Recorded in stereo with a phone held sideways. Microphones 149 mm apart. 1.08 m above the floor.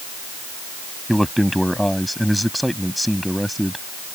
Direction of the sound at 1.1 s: Centre (ahead or behind).